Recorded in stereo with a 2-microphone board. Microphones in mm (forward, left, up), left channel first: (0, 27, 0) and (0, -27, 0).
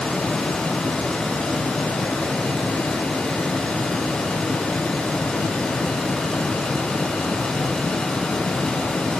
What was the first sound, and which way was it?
Only background noise.